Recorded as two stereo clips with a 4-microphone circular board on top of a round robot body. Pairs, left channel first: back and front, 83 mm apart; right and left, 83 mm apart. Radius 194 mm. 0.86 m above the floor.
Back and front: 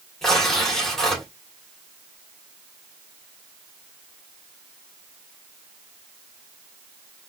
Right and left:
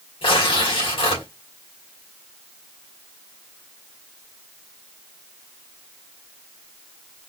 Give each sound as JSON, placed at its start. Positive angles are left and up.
{"t": 0.2, "sound": "tearing paper", "azimuth_deg": -95, "distance_m": 2.5}